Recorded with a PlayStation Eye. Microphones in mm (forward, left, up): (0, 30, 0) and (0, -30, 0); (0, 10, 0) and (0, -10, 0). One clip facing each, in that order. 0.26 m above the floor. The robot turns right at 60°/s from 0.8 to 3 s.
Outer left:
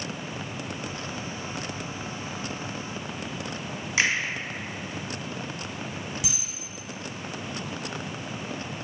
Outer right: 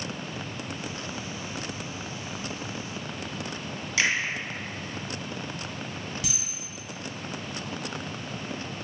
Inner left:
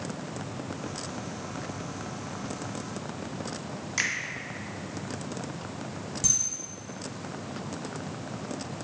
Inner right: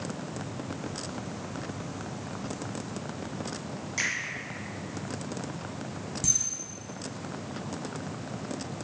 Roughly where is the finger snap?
Left.